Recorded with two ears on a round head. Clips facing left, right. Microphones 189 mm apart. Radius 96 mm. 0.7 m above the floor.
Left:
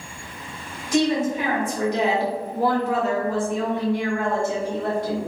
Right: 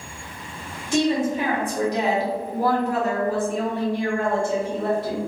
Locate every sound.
0.9 s a woman speaking: 25° right (ahead or behind), 1.3 m; by 5.2 s 20° right (ahead or behind), 1.6 m